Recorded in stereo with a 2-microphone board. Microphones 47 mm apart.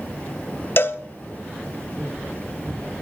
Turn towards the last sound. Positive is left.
turn(degrees=50)  # may be behind; listen again after turning